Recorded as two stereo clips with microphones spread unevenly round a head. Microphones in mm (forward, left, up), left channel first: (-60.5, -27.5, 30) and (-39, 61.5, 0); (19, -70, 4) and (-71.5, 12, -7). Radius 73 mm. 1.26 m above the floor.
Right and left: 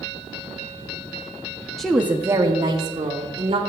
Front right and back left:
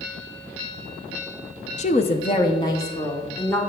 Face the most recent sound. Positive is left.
turn(degrees=35)